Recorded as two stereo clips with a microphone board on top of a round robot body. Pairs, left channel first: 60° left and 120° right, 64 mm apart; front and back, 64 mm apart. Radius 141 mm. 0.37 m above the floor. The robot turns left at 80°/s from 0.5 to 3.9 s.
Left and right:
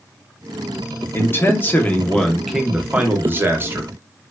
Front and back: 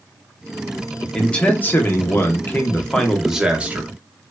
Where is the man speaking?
75° left, 0.9 m; by 3.9 s 145° right, 0.9 m.